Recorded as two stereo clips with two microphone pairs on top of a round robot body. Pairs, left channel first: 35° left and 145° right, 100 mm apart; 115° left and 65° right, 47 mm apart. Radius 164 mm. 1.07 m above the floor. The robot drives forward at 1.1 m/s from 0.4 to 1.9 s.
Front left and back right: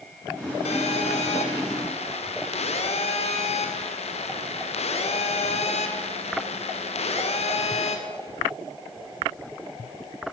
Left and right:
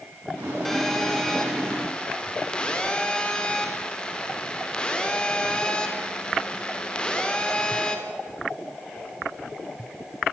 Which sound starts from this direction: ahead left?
A phone buzzing, at 0.7 s.